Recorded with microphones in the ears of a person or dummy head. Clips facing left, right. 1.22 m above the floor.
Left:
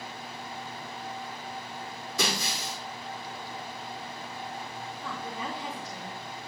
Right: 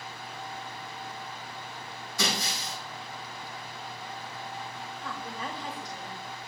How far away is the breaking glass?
About 2.5 m.